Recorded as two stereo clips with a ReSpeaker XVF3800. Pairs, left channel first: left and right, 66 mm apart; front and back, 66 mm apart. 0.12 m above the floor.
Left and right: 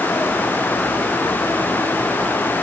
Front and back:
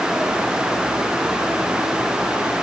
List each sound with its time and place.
Only background noise.